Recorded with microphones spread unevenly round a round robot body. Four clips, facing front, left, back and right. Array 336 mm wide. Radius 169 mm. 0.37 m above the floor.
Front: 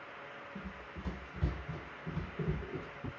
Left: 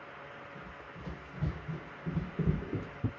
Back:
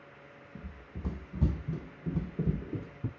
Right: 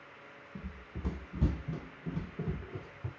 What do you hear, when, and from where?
0.6 s running footsteps: 115° right, 1.1 m; by 3.1 s 115° left, 0.7 m